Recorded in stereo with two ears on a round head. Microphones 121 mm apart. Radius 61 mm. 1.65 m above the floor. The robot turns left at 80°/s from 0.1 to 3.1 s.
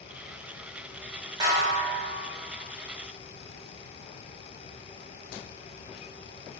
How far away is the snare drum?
About 0.7 m.